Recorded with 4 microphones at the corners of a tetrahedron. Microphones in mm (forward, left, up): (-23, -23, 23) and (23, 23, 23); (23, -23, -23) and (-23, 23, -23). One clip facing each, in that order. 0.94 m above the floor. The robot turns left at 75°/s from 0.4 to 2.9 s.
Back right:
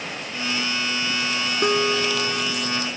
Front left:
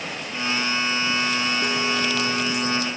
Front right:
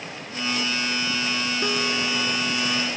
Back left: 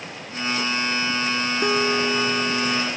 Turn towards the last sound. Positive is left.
turn(degrees=105)